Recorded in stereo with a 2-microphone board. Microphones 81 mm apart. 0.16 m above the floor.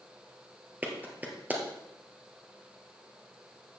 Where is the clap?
20° right (ahead or behind), 2 m.